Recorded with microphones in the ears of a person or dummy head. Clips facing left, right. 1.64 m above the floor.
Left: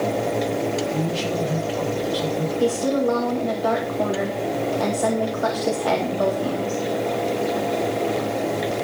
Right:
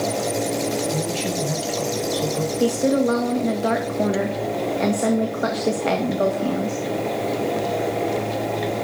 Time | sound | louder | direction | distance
0.9 | a man speaking | left 1 dB | 55° right (ahead or behind) | 8.5 m
2.6 | a woman speaking | right 2 dB | 30° right (ahead or behind) | 1.9 m